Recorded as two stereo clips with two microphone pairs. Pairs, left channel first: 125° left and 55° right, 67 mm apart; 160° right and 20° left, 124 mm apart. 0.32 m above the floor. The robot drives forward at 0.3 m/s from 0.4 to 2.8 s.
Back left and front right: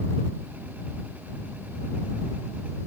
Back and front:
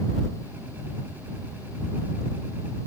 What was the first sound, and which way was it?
Only background noise.